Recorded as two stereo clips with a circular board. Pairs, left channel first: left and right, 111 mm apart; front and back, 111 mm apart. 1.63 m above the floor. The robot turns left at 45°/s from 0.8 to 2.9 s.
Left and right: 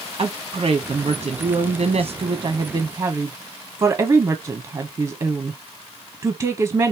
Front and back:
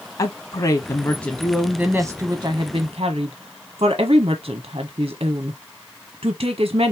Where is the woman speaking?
40° right, 1.0 m; by 6.9 s 135° right, 1.0 m.